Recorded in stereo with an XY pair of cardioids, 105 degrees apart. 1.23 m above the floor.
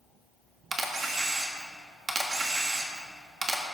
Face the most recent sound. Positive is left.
turn(degrees=-30)